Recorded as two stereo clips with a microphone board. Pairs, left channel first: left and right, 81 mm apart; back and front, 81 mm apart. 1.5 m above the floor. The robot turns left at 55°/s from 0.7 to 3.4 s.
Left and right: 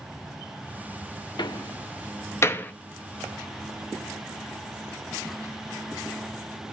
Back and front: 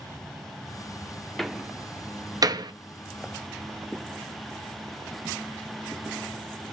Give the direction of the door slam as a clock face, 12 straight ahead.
9 o'clock.